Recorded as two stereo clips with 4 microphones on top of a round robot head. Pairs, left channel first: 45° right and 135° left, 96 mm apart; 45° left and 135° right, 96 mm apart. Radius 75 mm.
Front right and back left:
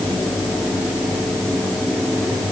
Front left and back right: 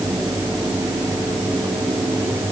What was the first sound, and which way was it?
Only background noise.